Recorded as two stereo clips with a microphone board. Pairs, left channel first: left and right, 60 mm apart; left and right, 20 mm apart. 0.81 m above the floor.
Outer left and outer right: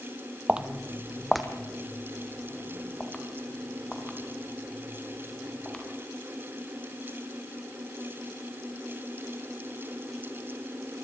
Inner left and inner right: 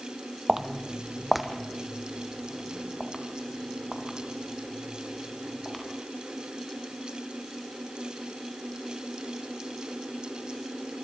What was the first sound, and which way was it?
Footsteps, 20° right (ahead or behind).